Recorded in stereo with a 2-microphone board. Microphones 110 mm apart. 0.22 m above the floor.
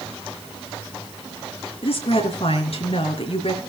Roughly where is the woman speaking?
Left.